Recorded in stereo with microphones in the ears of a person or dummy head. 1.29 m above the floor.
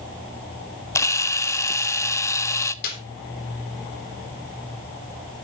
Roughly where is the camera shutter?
Centre.